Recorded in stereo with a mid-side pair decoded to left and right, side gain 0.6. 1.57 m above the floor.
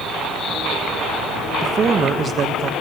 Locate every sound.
1.6 s a man speaking: 40° right, 1.3 m